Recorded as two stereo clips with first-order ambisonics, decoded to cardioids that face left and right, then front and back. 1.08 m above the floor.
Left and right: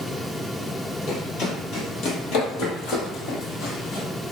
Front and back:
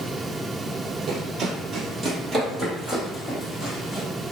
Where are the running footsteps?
125° left, 1.8 m; by 4.1 s 65° left, 2 m.